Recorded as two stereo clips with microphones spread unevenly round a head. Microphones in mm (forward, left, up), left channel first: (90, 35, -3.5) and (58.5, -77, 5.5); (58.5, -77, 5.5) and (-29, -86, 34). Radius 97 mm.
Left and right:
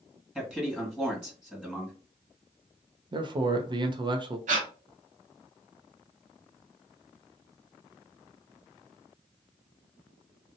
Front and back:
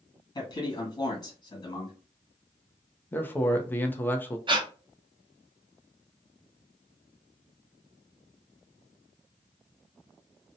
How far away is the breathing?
About 0.7 m.